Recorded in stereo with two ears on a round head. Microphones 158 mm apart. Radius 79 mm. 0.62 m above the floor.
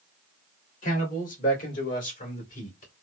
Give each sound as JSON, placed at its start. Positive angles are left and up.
{"t": 0.8, "sound": "a man speaking", "side_deg": 50, "distance_m": 2.0}